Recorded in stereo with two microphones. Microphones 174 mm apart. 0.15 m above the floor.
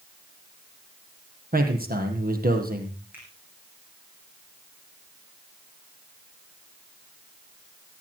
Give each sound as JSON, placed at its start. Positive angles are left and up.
{"t": 1.5, "sound": "a man speaking", "side_deg": -60, "distance_m": 4.0}
{"t": 3.1, "sound": "a finger snap", "side_deg": -10, "distance_m": 8.0}